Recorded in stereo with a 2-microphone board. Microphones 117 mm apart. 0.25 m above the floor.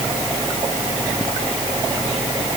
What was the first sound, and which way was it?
Only background noise.